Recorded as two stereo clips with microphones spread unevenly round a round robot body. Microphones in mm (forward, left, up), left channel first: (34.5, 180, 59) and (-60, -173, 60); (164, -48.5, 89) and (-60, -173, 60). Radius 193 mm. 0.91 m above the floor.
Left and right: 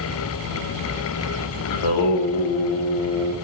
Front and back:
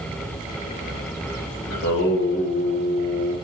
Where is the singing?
80° left, 0.7 m.